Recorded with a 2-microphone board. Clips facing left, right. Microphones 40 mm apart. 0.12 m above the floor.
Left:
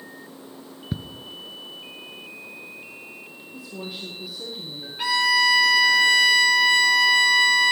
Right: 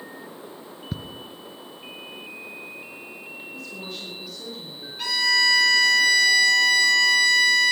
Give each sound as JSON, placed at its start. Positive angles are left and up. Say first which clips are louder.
{"t": 0.9, "sound": "ticking", "louder": "left 3 dB", "side_deg": 10, "distance_m": 0.9}
{"t": 3.5, "sound": "a woman speaking", "louder": "left 3 dB", "side_deg": 10, "distance_m": 4.5}
{"t": 5.0, "sound": "a violin", "louder": "left 2 dB", "side_deg": 25, "distance_m": 3.5}